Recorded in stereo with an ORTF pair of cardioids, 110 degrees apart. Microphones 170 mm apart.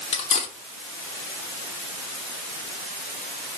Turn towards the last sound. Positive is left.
turn(degrees=40)